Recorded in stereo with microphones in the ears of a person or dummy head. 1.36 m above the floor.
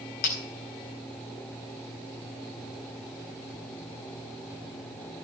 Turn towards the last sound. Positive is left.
turn(degrees=50)  # may be behind; listen again after turning